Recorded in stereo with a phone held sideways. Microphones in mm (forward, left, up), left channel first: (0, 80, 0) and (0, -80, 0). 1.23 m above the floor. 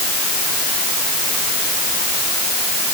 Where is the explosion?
No explosion in this recording.